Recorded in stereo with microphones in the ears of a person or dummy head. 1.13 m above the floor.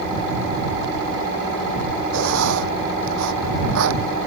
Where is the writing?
75° right (ahead or behind).